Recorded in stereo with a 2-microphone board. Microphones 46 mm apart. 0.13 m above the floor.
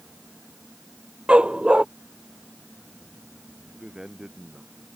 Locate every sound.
1.3 s a dog barking: 20° right (ahead or behind)
3.7 s a man speaking: 15° right (ahead or behind)